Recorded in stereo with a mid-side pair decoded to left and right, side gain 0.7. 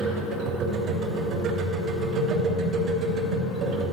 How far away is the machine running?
About 3.5 m.